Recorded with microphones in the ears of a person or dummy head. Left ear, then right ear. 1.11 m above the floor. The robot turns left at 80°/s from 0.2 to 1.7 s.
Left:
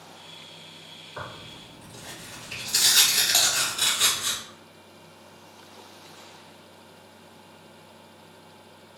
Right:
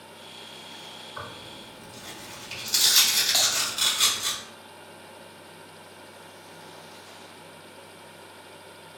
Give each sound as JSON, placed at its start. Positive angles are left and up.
{"t": 1.2, "sound": "tearing paper", "azimuth_deg": 0, "distance_m": 1.2}
{"t": 3.3, "sound": "typing on a keyboard", "side_deg": 10, "distance_m": 0.6}